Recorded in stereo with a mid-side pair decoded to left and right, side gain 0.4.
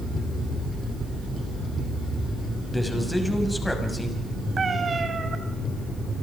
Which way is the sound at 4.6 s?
40° right.